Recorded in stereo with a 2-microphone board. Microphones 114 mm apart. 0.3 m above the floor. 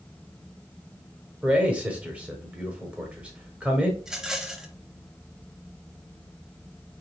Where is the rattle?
5° right (ahead or behind), 0.8 m.